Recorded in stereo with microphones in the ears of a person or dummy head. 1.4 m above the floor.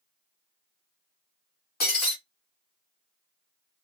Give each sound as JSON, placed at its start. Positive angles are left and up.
{"t": 1.8, "sound": "breaking glass", "side_deg": 40, "distance_m": 1.7}